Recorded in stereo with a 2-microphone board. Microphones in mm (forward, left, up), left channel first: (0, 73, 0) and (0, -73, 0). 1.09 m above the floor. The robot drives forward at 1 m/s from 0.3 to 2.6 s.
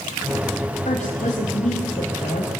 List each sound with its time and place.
0.8 s a woman speaking: 50° left (ahead or behind), 5.5 m; by 2.5 s 65° left (ahead or behind), 4.5 m